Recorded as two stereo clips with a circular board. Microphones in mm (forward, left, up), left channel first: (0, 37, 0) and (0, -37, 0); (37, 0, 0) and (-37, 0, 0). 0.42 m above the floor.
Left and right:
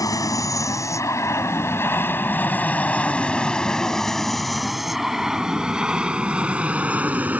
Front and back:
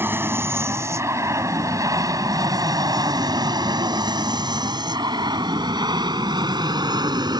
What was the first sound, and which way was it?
An aircraft, 125° left.